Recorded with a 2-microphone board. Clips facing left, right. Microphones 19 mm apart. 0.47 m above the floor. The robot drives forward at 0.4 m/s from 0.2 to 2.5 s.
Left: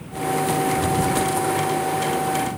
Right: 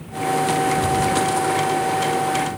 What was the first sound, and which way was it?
Only background noise.